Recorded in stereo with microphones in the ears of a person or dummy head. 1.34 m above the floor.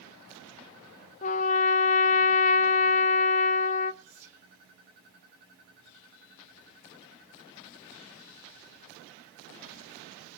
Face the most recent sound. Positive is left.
turn(degrees=-5)  # may be behind; listen again after turning